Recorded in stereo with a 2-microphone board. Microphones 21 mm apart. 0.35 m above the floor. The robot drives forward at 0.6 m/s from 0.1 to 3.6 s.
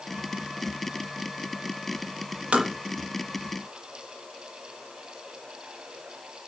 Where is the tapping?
85° right, 5.5 m; by 2.7 s 80° right, 5.5 m.